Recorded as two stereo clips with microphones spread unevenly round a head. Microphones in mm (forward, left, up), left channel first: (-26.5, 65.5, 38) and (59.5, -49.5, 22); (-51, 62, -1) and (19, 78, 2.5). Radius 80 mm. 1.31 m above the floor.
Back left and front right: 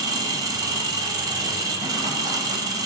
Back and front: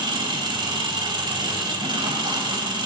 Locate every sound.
0.0 s an engine running: 15° left, 2.5 m